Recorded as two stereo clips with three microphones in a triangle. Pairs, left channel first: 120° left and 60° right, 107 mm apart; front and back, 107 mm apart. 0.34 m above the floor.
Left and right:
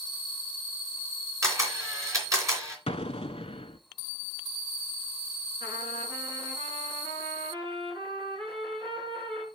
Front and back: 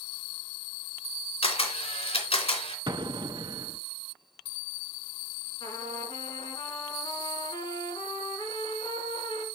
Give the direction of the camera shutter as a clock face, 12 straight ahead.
12 o'clock.